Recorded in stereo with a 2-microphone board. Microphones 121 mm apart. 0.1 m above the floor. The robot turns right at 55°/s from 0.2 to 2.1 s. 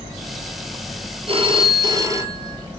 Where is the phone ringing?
80° right, 1.4 m; by 2.6 s 35° right, 1.4 m.